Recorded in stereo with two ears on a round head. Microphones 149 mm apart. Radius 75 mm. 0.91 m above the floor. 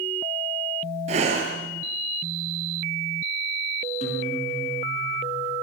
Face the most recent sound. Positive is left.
turn(degrees=45)  # may be behind; listen again after turning